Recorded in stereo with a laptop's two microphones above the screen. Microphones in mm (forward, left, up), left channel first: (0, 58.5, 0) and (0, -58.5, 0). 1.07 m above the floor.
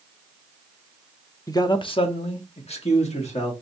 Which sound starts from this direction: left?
A man speaking, at 1.5 s.